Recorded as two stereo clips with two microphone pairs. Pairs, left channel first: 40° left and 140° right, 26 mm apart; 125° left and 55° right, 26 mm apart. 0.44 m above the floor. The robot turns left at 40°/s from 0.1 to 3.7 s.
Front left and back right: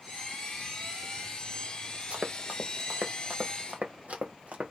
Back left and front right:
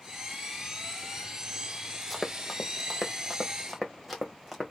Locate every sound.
2.1 s running footsteps: 150° right, 0.9 m; by 4.7 s 140° right, 1.5 m